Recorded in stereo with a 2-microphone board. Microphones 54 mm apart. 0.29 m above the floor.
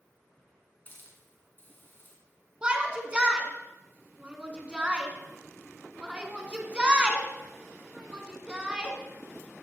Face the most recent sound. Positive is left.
turn(degrees=-15)  # may be behind; listen again after turning